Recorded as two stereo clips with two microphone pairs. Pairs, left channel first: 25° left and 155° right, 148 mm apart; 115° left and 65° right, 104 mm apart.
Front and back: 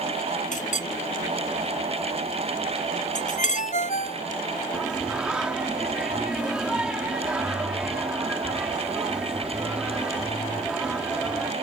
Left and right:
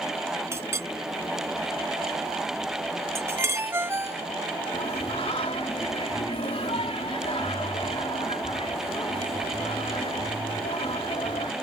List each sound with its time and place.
0.5 s a clink: 5° right
3.4 s a ringtone: straight ahead
4.7 s singing: 125° left